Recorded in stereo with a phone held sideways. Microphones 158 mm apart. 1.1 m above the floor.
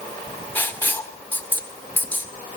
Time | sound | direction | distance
0.6 | writing | 10° left (ahead or behind) | 1.1 m